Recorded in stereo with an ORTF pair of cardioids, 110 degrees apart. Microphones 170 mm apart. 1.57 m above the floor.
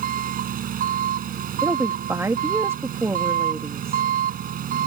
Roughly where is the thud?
No thud in this recording.